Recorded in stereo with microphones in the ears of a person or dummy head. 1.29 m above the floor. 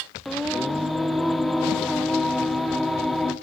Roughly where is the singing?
Centre.